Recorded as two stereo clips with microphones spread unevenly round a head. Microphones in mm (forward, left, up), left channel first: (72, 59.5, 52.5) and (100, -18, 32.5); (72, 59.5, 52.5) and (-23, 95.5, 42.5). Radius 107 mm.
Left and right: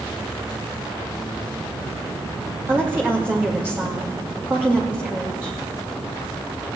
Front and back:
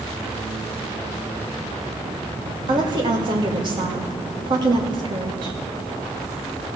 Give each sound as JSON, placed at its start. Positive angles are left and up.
{"t": 2.7, "sound": "a woman speaking", "azimuth_deg": -145, "distance_m": 2.0}